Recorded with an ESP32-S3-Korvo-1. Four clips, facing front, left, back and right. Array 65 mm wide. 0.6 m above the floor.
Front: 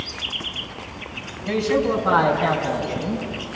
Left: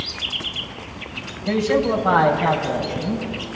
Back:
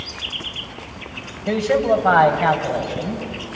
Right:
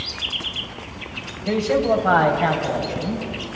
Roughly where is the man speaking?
Behind.